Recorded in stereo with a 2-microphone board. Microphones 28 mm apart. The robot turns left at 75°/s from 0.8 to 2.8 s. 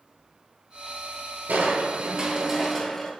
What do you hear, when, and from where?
1.5 s crushing: 100° right, 0.6 m; by 3.1 s 160° left, 0.6 m